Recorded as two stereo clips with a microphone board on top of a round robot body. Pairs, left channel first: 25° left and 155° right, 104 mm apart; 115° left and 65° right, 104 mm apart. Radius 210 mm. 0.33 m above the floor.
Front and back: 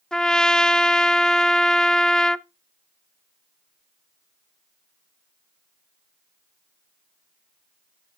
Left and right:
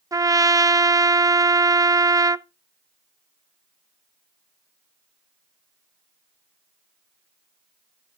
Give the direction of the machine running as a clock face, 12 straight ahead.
No machine running in this recording.